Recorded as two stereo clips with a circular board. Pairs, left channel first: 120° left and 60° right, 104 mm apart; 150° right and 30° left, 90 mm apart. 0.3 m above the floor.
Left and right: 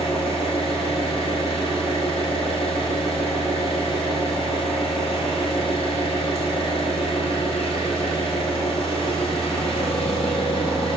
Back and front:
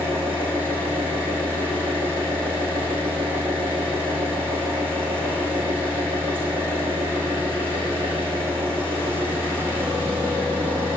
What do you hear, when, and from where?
0.0 s an engine running: 95° left, 4 m